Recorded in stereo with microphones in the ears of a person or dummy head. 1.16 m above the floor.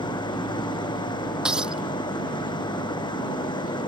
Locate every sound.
0.0 s an engine running: 30° left (ahead or behind)
1.4 s breaking glass: centre (ahead or behind)